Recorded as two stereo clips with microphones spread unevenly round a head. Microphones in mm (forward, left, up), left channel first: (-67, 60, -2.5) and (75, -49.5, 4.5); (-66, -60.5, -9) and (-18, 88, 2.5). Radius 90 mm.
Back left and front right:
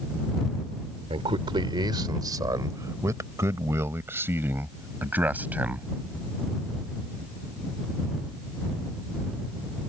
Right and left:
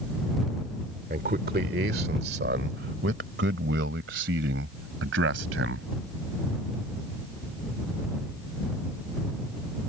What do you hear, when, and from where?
1.1 s a man speaking: 25° left; by 5.9 s 45° left